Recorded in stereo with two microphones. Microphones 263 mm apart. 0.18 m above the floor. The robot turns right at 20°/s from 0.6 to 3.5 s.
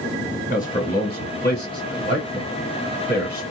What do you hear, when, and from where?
0.5 s a man speaking: 30° left (ahead or behind), 1.5 m; by 3.4 s 40° left (ahead or behind), 1.5 m